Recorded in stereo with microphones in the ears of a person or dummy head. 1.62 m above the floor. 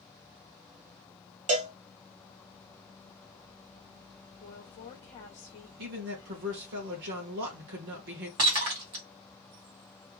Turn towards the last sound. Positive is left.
turn(degrees=-25)  # may be behind; listen again after turning